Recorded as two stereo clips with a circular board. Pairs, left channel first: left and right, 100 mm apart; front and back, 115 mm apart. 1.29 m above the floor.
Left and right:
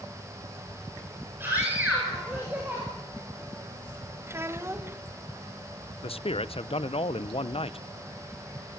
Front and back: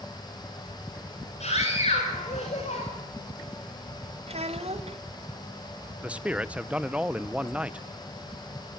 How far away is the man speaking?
About 0.7 m.